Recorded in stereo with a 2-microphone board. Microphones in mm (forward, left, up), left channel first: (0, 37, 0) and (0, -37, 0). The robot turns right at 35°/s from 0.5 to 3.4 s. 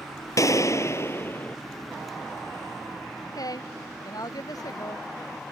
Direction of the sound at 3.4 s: 60° left (ahead or behind).